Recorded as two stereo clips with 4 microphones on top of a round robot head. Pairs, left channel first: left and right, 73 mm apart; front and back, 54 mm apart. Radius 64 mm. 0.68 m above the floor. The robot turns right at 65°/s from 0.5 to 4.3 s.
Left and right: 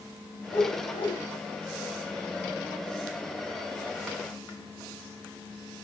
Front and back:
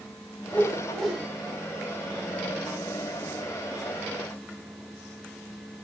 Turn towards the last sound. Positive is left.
turn(degrees=-55)